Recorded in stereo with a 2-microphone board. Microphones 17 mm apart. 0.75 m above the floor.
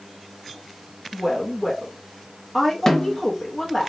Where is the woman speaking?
15° left (ahead or behind), 0.6 m.